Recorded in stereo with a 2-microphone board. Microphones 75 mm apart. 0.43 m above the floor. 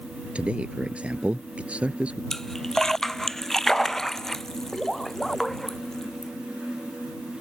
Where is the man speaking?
15° right (ahead or behind).